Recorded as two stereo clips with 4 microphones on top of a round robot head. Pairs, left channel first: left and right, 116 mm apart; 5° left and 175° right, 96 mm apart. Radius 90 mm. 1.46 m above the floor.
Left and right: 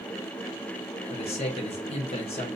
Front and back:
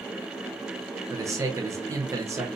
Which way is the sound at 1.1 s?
125° left.